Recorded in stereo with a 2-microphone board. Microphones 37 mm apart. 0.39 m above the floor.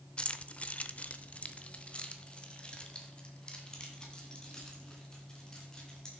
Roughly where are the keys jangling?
Left.